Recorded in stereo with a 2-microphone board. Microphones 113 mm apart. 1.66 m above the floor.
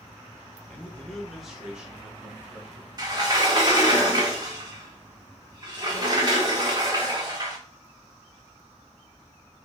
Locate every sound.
0.7 s a man speaking: 10° left (ahead or behind), 1.6 m; by 2.9 s 15° right (ahead or behind), 3 m
3.0 s a sliding door: 35° right (ahead or behind), 1.7 m